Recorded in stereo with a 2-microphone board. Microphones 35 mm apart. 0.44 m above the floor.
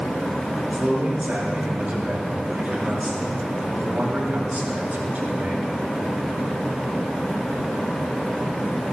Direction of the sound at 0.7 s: 55° right (ahead or behind).